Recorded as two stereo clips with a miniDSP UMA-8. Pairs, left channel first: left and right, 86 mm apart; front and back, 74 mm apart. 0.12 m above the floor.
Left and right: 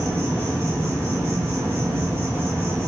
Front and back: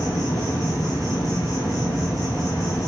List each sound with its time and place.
0.0 s an insect: 30° right, 5.5 m